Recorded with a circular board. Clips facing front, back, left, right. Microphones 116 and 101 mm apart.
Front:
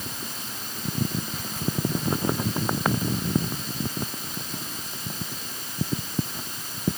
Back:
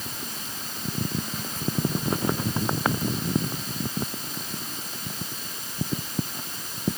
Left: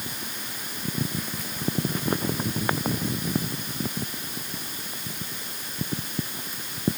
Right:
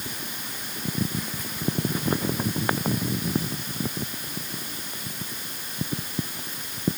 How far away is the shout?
No shout in this recording.